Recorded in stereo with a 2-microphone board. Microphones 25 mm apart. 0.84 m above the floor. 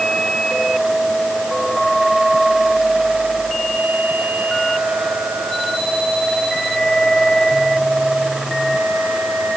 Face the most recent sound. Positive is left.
No sound to turn to.